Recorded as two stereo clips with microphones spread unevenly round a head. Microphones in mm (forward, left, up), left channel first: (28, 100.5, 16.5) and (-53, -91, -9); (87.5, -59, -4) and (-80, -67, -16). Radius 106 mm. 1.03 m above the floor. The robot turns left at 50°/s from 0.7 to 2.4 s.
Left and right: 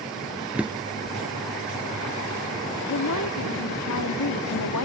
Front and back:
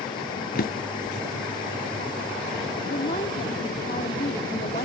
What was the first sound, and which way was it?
A drawer, 25° right.